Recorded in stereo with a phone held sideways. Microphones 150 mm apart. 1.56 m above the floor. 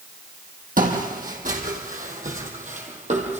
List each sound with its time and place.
0.8 s footsteps: 65° right (ahead or behind), 4 m; by 3.4 s 50° right (ahead or behind), 3.5 m